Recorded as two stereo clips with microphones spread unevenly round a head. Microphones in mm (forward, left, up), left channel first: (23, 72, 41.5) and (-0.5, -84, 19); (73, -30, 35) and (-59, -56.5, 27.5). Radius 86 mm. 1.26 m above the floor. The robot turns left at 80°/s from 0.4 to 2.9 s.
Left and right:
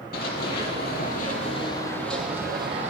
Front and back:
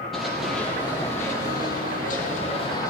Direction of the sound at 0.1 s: 100° left.